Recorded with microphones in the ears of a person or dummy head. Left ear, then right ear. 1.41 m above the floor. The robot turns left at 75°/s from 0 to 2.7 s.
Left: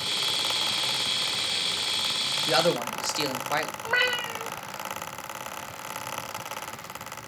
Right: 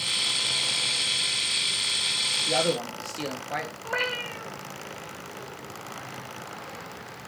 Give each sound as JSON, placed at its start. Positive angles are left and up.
{"t": 2.5, "sound": "a man speaking", "side_deg": 55, "distance_m": 1.4}
{"t": 3.8, "sound": "a cat meowing", "side_deg": 35, "distance_m": 2.0}